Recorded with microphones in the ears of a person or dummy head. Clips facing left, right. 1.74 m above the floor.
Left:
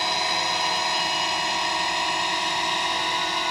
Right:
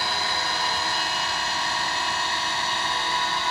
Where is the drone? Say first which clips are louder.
Left 2 dB; 20° left (ahead or behind); by 3.5 s 15° left (ahead or behind).